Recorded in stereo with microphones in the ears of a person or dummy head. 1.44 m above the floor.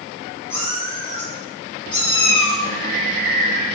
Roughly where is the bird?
Right.